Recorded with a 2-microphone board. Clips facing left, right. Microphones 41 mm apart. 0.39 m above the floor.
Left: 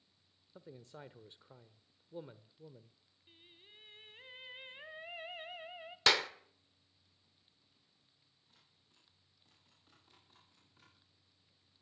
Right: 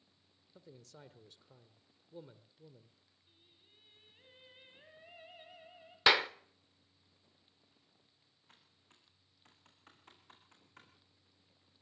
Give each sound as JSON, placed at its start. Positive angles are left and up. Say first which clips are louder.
{"t": 0.6, "sound": "a man speaking", "louder": "left 4 dB", "side_deg": 25, "distance_m": 0.9}
{"t": 3.3, "sound": "singing", "louder": "left 8 dB", "side_deg": 60, "distance_m": 1.3}
{"t": 6.1, "sound": "a clap", "louder": "right 3 dB", "side_deg": -15, "distance_m": 0.6}
{"t": 8.5, "sound": "typing on a keyboard", "louder": "right 5 dB", "side_deg": -75, "distance_m": 6.5}